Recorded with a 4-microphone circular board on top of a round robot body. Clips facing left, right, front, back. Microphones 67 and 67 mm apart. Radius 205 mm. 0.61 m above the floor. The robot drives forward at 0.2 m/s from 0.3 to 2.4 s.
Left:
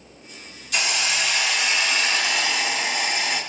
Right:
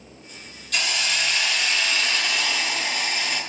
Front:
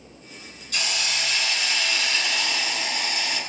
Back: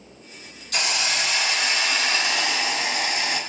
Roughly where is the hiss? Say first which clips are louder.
Left 1 dB, back 3 dB; behind.